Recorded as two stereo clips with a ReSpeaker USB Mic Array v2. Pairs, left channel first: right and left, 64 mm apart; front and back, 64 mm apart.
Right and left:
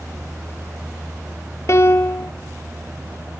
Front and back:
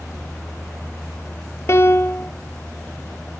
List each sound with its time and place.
1.7 s a piano: 45° right, 0.7 m